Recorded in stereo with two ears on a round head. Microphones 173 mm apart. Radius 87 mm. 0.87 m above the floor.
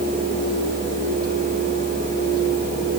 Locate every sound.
Only background noise.